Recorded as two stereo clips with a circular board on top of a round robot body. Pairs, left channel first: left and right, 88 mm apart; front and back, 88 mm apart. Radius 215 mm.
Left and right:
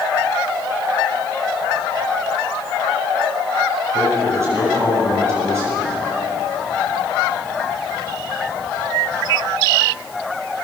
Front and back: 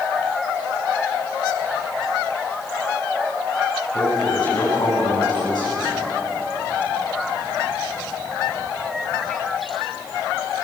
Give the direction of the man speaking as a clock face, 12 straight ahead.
1 o'clock.